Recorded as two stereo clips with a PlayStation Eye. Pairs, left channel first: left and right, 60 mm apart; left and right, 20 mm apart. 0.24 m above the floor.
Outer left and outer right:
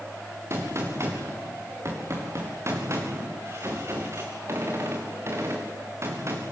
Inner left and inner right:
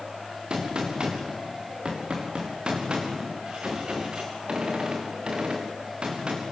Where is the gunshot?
50° right (ahead or behind), 4 m.